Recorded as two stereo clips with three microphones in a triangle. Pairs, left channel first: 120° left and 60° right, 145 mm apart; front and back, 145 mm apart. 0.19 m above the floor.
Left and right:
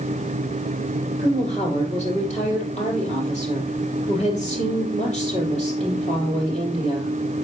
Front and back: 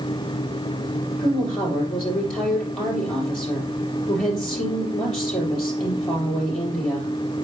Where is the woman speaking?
80° left, 4.5 m.